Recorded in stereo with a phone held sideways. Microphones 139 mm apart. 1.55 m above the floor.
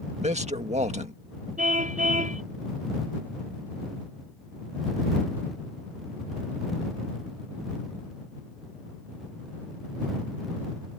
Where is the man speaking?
55° right (ahead or behind).